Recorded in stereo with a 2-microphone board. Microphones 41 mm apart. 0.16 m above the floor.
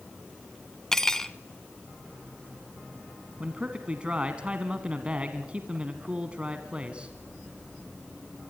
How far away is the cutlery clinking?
About 0.7 m.